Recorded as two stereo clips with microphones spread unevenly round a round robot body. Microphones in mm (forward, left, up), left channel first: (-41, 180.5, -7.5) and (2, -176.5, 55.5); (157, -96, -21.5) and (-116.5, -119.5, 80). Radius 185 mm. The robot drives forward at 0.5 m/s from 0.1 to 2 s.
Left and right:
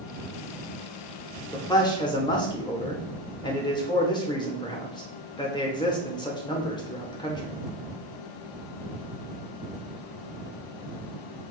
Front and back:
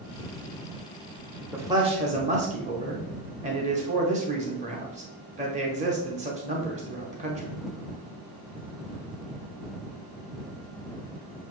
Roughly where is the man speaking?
Ahead left.